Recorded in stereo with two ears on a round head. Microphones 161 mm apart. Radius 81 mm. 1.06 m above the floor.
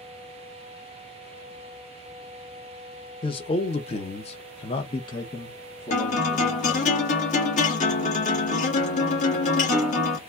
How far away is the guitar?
About 1.5 m.